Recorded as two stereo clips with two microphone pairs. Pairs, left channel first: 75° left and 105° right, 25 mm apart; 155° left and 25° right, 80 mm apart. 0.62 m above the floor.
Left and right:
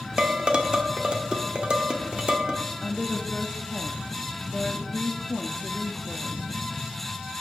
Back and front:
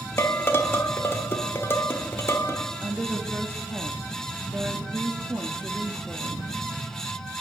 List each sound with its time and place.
0.2 s dishes clattering: 150° right, 1.2 m
2.8 s a woman speaking: 10° right, 0.8 m